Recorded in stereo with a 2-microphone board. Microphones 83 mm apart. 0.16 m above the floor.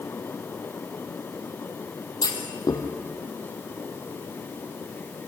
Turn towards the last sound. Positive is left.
turn(degrees=50)  # may be behind; listen again after turning